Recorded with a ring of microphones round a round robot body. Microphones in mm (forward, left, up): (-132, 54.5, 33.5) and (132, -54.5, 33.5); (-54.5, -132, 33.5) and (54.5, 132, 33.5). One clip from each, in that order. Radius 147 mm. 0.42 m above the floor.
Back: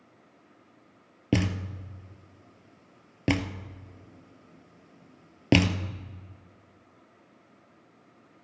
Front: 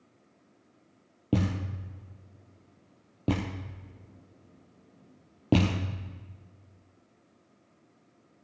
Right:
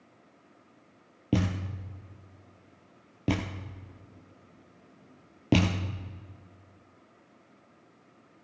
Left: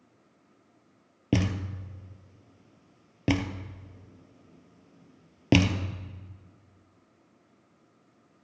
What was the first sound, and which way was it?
A thud, 135° left.